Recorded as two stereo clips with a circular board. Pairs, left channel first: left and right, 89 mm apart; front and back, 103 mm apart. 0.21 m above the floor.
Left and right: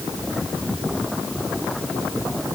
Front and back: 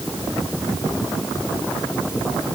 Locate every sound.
Only background noise.